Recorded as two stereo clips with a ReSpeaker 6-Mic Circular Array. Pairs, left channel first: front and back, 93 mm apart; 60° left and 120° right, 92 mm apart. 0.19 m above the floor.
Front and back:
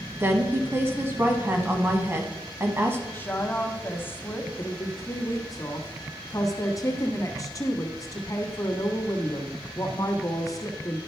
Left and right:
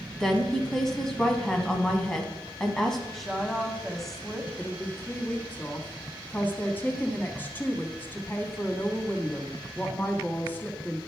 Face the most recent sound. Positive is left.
turn(degrees=0)